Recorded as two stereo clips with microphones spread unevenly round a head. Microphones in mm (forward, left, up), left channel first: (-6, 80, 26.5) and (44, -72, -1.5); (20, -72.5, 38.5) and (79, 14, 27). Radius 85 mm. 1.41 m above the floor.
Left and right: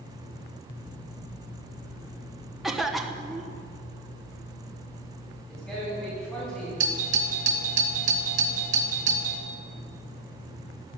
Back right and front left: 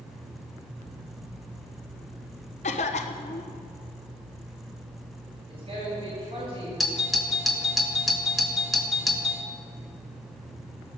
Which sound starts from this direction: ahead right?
A doorbell, at 6.8 s.